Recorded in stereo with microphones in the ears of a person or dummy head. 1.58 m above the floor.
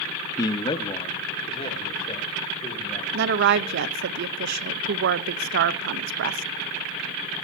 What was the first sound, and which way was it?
A man speaking, 30° left (ahead or behind).